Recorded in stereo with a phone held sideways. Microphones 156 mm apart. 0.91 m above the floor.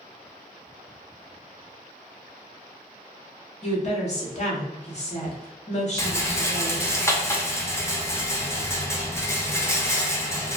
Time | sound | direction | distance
3.6 | a woman speaking | 45° left (ahead or behind) | 1.1 m
6.0 | a rattle | 15° left (ahead or behind) | 0.6 m